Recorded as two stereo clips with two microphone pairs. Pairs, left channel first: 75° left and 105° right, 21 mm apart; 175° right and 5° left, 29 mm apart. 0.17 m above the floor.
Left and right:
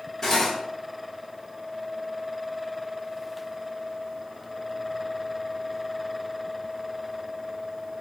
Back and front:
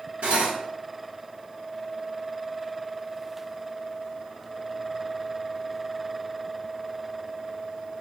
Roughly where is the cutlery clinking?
Ahead.